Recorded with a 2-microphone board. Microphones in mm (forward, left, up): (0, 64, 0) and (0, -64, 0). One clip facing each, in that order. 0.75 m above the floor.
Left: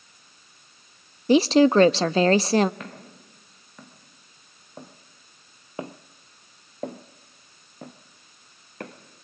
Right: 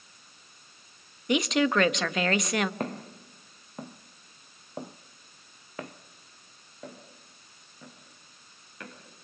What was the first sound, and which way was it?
A woman speaking, 35° left (ahead or behind).